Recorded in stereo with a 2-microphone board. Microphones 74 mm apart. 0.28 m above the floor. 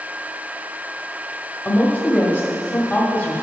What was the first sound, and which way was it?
A woman speaking, 25° left (ahead or behind).